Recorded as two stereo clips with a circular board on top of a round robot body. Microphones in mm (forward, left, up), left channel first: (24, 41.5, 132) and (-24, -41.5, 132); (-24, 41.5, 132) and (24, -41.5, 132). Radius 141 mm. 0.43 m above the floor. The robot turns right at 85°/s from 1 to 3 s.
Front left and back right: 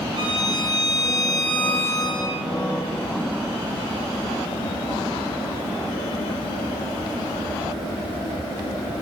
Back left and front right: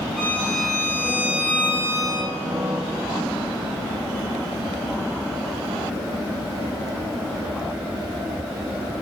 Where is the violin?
160° right, 6.5 m; by 2.3 s 50° right, 6.5 m.